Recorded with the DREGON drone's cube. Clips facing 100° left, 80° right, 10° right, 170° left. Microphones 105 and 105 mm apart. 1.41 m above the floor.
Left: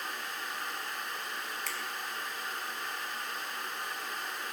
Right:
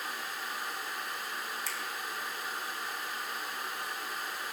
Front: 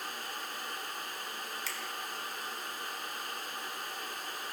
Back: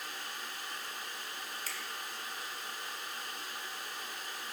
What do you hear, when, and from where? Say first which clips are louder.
1.7 s a finger snap: even, front 2 dB; 125° left, 1.0 m